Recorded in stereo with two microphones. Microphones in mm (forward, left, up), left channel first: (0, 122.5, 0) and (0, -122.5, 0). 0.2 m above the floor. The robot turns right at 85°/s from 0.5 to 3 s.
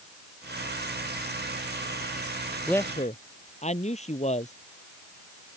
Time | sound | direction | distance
2.7 | a man speaking | centre (ahead or behind) | ?